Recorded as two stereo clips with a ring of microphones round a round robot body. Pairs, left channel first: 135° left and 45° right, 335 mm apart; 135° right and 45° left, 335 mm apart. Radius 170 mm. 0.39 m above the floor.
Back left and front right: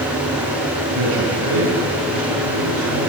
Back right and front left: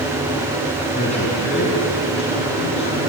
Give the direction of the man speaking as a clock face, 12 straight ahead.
2 o'clock.